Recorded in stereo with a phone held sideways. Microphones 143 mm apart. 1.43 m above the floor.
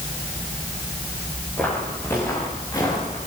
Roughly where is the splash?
I don't hear a splash.